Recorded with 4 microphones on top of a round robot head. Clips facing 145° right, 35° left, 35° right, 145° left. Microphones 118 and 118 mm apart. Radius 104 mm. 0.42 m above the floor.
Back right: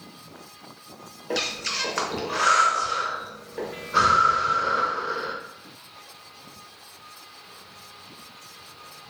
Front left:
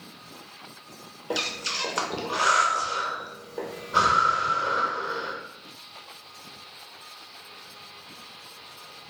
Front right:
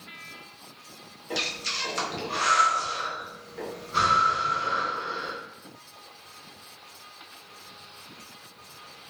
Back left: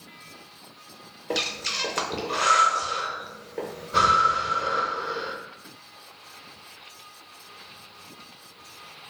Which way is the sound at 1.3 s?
110° left.